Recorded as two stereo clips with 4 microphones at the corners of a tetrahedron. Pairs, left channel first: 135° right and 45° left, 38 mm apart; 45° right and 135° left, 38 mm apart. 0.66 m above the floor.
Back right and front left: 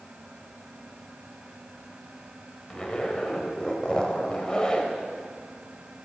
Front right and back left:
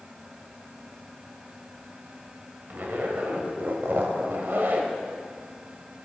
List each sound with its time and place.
2.7 s a zipper: 160° left, 1.0 m